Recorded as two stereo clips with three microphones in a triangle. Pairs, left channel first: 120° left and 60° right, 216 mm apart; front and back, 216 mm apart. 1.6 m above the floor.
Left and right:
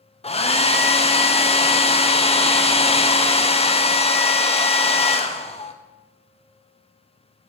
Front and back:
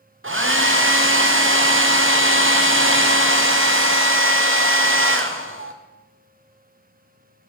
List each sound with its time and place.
0.2 s a hair dryer: 175° right, 0.6 m